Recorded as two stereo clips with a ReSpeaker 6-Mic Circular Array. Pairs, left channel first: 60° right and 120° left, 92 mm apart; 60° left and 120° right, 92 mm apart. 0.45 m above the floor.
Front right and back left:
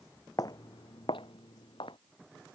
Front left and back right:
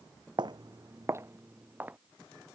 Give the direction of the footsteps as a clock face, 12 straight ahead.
3 o'clock.